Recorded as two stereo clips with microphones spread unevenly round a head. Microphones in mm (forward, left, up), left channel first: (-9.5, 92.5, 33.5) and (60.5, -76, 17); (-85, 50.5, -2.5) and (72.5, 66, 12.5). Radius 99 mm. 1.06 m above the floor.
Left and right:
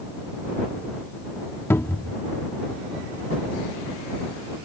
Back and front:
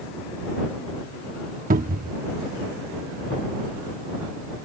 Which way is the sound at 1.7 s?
35° left.